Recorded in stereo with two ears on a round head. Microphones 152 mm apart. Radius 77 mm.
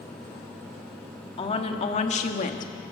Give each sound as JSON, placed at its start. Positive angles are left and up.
{"t": 1.4, "sound": "a woman speaking", "side_deg": 35, "distance_m": 2.5}